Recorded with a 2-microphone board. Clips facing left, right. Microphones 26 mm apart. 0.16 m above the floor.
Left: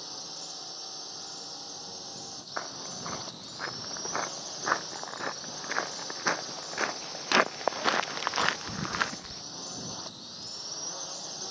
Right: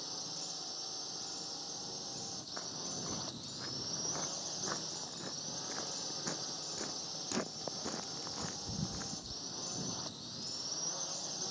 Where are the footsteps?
50° left (ahead or behind); by 9.4 s 85° left.